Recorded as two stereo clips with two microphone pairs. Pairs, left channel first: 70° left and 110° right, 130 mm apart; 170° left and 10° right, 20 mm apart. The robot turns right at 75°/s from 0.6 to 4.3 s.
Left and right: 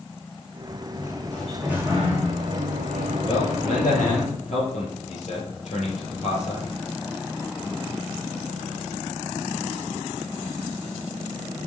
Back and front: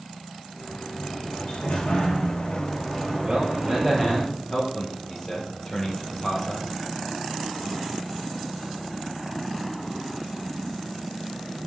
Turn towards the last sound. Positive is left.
turn(degrees=95)